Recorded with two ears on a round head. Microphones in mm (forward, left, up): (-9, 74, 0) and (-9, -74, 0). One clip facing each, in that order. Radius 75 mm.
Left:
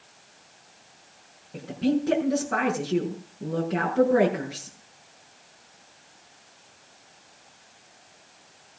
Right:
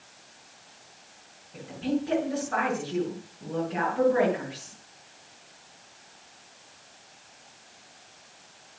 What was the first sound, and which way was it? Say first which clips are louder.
A woman speaking: left 4 dB; 50° left (ahead or behind).